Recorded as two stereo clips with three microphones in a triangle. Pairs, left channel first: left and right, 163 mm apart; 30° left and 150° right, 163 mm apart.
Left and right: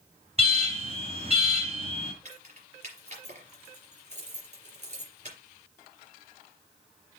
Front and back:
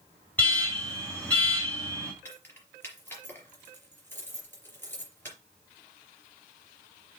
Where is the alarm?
50° right, 3.5 m.